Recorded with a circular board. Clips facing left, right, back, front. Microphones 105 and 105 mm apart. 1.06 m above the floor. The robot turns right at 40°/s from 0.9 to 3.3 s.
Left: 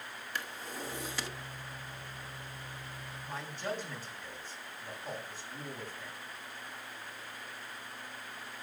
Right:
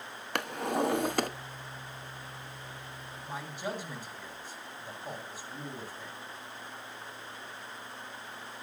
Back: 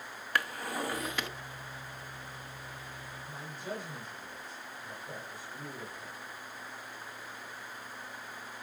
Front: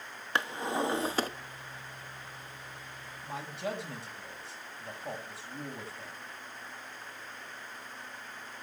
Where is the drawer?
65° right, 0.8 m; by 1.3 s 50° right, 0.8 m.